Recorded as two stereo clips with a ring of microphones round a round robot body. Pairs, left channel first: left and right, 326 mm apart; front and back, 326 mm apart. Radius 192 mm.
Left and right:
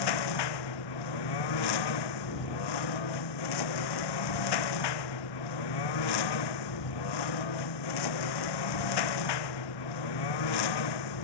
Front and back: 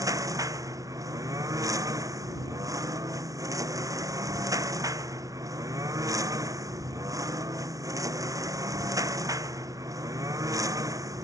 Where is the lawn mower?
100° left.